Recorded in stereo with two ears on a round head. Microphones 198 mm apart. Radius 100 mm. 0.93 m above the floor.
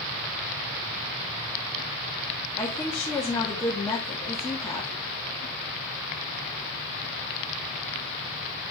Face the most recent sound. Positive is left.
turn(degrees=15)  # may be behind; listen again after turning